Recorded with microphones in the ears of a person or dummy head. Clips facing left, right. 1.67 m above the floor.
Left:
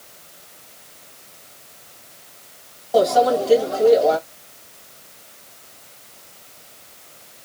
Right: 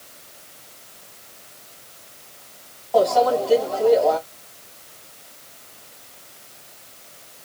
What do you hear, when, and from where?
2.9 s a microwave: 25° left (ahead or behind), 2 m